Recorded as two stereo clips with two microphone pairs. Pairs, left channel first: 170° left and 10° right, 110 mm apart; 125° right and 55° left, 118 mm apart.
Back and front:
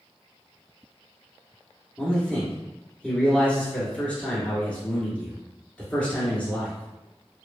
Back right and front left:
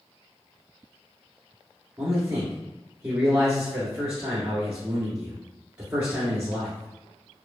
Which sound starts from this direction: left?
A man speaking, at 2.0 s.